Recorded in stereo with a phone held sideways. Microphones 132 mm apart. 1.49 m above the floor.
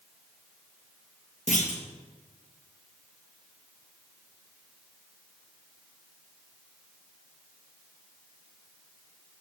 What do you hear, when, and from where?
1.5 s a clunk: 65° left (ahead or behind), 1.6 m